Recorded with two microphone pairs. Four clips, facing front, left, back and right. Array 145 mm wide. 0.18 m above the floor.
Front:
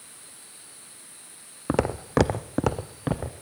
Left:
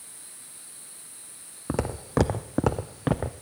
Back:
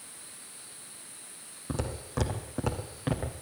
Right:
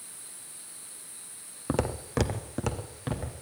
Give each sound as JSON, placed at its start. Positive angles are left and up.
{"t": 1.7, "sound": "footsteps", "azimuth_deg": -10, "distance_m": 0.8}